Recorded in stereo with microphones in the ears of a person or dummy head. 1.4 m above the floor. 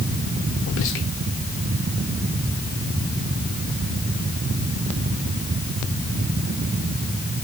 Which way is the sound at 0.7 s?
65° left (ahead or behind).